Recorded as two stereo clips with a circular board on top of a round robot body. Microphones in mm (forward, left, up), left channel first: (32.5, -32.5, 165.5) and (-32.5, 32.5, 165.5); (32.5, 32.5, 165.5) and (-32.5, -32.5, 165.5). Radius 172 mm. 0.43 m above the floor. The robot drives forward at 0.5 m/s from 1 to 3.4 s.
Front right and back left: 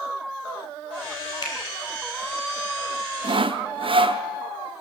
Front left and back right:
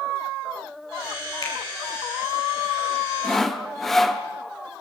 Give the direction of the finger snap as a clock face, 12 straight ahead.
12 o'clock.